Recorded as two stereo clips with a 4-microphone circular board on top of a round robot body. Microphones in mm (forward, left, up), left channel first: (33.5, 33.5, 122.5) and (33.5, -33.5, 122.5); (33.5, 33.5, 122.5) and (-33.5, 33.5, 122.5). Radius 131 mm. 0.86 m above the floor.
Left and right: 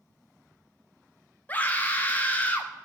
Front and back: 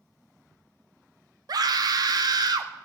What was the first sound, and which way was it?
A scream, 160° left.